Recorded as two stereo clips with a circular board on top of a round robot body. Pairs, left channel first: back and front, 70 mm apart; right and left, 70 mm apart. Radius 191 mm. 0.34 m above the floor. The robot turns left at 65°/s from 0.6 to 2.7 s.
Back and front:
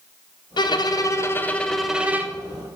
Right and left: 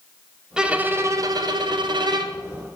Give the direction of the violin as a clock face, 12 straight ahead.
6 o'clock.